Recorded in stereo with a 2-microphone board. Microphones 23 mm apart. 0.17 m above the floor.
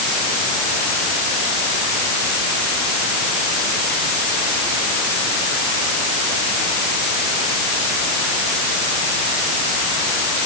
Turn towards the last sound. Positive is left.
No sound to turn to.